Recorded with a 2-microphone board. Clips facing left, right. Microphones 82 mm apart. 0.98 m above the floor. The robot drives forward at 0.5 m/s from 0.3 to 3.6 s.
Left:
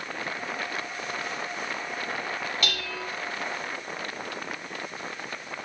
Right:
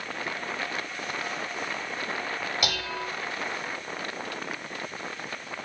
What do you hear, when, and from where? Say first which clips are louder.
2.6 s dishes clattering: right 2 dB; 15° right (ahead or behind), 1.5 m